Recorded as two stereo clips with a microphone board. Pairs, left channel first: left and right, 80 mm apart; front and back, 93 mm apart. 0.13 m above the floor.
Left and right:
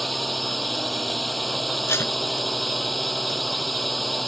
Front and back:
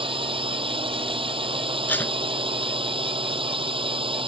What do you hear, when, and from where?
0.0 s a drone: straight behind
1.9 s tape being pulled: 60° left